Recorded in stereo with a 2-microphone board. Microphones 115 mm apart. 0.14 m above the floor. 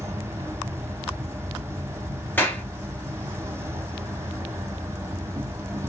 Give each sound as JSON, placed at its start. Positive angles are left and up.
{"t": 0.0, "sound": "an insect", "side_deg": -25, "distance_m": 0.7}
{"t": 2.4, "sound": "a clap", "side_deg": 20, "distance_m": 1.6}